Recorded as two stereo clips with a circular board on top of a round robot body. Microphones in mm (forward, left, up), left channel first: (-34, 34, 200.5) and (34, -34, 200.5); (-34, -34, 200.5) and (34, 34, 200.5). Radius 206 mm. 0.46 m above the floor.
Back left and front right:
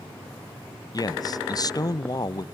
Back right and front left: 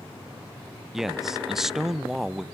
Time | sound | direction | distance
0.9 | a man speaking | 130° left | 0.8 m